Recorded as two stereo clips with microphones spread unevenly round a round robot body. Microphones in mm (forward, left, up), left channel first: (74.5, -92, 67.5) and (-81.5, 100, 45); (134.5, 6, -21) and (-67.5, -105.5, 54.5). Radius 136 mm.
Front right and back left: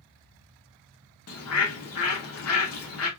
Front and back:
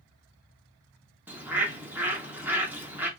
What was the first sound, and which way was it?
A bird, 60° right.